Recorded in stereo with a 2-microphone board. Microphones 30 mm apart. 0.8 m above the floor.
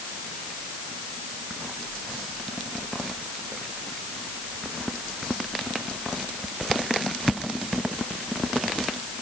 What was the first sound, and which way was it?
Only background noise.